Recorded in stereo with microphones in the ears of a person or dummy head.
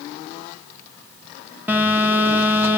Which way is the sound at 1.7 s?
10° right (ahead or behind).